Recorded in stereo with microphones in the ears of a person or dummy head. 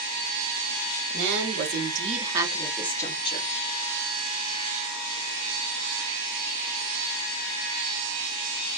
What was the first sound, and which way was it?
A woman speaking, 65° right (ahead or behind).